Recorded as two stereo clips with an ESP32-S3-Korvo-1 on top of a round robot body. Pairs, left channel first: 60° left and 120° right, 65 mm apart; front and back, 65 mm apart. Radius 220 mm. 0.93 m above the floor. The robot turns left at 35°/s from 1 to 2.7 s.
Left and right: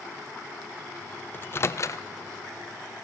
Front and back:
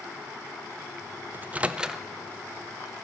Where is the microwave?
120° left, 0.5 m; by 2.0 s 95° left, 0.5 m.